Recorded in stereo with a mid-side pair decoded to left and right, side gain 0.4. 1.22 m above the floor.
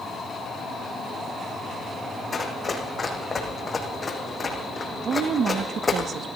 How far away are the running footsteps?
About 4.5 m.